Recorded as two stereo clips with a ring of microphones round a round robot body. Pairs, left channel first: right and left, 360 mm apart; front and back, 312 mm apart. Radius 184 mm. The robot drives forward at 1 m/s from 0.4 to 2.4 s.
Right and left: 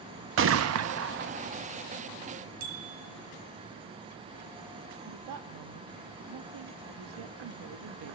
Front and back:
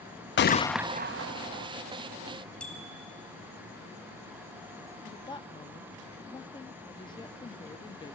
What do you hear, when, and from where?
0.4 s a gunshot: 45° left, 0.7 m; by 1.7 s 160° left, 1.1 m
2.6 s a bicycle bell: 85° left, 3.5 m
5.1 s a woman speaking: 75° left, 1.0 m